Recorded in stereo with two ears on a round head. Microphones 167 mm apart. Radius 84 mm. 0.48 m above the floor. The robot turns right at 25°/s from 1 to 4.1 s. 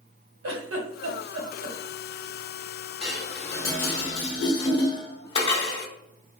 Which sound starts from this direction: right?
A giggle, at 0.4 s.